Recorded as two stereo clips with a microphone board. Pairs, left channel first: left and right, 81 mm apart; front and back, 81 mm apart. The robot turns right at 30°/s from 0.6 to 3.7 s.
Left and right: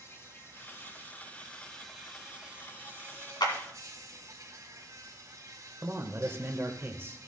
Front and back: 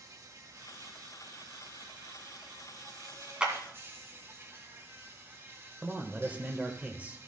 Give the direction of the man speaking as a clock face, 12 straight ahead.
4 o'clock.